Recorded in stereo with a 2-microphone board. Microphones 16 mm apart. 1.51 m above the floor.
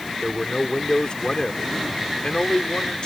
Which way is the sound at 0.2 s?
55° left (ahead or behind).